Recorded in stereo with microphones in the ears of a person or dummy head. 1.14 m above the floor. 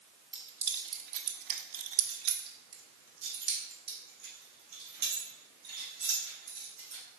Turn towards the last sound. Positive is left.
turn(degrees=-55)  # may be behind; listen again after turning